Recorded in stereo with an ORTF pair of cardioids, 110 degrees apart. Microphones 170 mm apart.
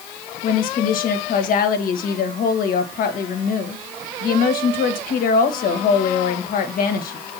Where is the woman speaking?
60° left, 1.8 m.